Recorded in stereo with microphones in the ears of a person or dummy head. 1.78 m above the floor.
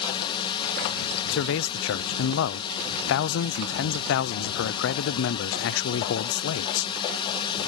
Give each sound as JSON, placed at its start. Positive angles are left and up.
{"t": 0.0, "sound": "a drone", "side_deg": 25}
{"t": 1.3, "sound": "a man speaking", "side_deg": 80}